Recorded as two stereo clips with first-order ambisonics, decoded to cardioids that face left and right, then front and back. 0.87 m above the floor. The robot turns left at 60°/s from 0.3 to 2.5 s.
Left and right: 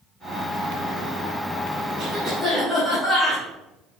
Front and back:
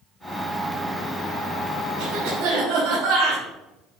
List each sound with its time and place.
2.0 s a cough: 160° right, 4 m; by 3.4 s 165° left, 4 m